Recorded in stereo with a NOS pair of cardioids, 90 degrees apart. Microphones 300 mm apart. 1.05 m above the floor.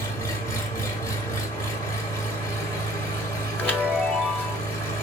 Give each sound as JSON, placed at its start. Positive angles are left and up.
{"t": 0.0, "sound": "an engine running", "azimuth_deg": 10, "distance_m": 1.2}
{"t": 3.6, "sound": "a chime", "azimuth_deg": 5, "distance_m": 1.2}